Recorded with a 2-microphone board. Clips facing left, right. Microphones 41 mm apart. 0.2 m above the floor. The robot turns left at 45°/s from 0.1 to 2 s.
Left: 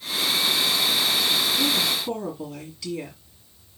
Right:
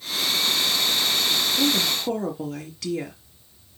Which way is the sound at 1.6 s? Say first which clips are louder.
Right 1 dB; 65° right (ahead or behind).